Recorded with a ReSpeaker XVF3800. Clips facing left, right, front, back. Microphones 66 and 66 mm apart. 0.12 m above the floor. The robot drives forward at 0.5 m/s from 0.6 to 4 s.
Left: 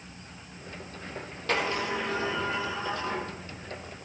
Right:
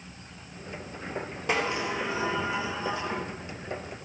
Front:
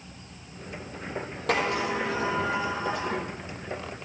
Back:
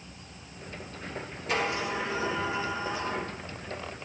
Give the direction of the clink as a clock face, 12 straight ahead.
I don't hear a clink.